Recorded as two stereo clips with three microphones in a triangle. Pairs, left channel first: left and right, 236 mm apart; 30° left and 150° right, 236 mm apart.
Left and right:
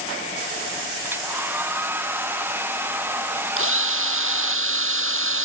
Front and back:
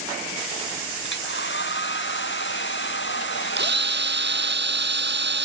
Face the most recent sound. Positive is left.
turn(degrees=-110)